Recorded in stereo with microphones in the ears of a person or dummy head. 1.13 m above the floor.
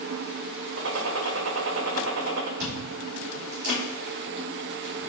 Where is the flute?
No flute in this recording.